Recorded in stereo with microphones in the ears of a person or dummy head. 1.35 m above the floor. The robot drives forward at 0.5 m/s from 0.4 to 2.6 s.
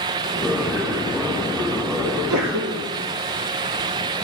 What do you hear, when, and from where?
2.0 s a sneeze: 70° right (ahead or behind), 1.4 m; by 2.9 s 65° right (ahead or behind), 1.5 m